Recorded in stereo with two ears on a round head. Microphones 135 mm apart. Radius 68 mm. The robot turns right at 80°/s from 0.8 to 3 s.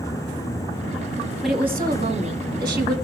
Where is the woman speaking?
175° left, 3.5 m; by 3.0 s 60° right, 3.5 m.